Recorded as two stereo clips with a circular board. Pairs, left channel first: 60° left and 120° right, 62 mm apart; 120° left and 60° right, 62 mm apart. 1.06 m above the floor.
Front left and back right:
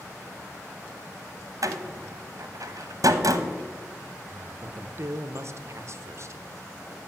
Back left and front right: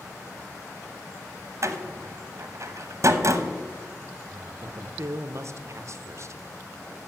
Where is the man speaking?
90° right, 0.6 m.